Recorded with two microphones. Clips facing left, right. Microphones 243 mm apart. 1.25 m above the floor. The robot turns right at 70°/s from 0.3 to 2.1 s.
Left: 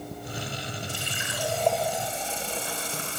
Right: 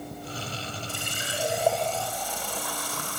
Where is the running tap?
60° right, 4 m; by 3.2 s 25° left, 4 m.